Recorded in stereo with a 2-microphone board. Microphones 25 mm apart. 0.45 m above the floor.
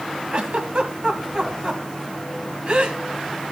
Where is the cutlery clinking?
I don't hear cutlery clinking.